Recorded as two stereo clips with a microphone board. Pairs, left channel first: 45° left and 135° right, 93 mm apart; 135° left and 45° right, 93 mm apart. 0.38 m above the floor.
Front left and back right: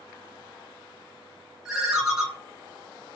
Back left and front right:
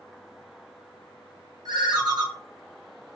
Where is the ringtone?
50° right, 0.8 m.